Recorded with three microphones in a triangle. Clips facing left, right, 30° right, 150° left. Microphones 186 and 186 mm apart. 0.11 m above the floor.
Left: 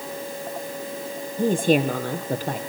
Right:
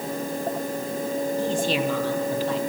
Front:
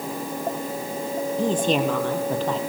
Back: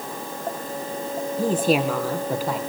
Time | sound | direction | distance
1.4 | a woman speaking | 70° left | 3 m